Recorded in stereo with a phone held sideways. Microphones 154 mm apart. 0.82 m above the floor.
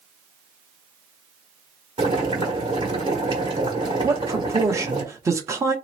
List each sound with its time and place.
2.0 s boiling: 35° right (ahead or behind), 1.5 m
4.0 s a man speaking: 20° right (ahead or behind), 0.8 m